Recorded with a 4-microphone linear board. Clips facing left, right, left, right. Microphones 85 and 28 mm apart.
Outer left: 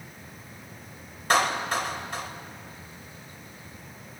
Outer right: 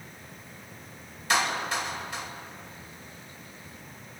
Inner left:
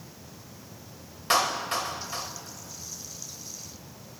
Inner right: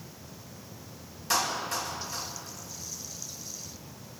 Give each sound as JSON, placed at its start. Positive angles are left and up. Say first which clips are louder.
{"t": 1.3, "sound": "a clap", "louder": "outer left 3 dB, inner left 4 dB", "side_deg": 45, "distance_m": 3.0}